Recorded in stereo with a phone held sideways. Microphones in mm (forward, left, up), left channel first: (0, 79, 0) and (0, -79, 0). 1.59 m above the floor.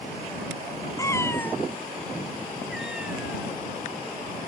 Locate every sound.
1.0 s a cat meowing: 20° left (ahead or behind); by 4.5 s 10° right (ahead or behind)